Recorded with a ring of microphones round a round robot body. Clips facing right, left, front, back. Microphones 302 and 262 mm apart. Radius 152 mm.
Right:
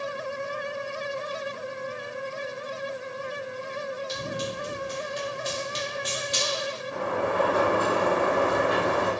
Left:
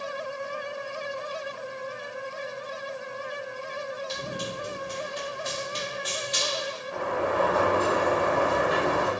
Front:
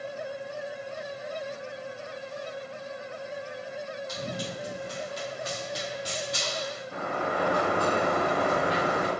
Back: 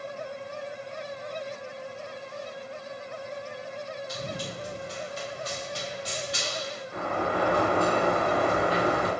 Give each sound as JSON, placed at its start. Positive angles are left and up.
{"t": 4.1, "sound": "running footsteps", "azimuth_deg": -20, "distance_m": 1.8}
{"t": 6.9, "sound": "a sliding door", "azimuth_deg": -35, "distance_m": 1.4}